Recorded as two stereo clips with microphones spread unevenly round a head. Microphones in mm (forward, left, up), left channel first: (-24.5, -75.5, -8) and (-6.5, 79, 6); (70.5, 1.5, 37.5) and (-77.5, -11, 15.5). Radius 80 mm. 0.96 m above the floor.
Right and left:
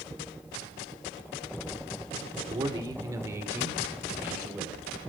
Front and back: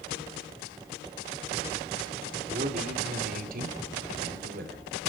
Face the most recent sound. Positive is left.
turn(degrees=165)